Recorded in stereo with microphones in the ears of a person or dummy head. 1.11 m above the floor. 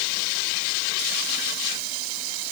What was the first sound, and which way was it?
Only background noise.